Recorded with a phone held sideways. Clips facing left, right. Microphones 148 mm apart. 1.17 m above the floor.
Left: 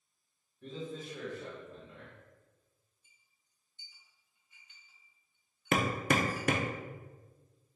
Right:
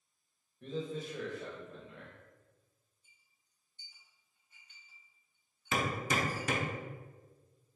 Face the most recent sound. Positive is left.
turn(degrees=65)  # may be behind; listen again after turning